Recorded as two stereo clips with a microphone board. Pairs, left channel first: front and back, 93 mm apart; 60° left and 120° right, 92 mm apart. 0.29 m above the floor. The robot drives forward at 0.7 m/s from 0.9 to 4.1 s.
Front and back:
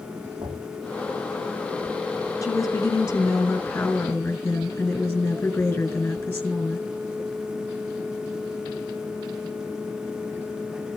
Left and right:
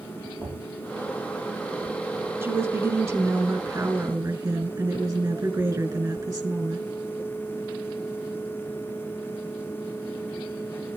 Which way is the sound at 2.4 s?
60° right.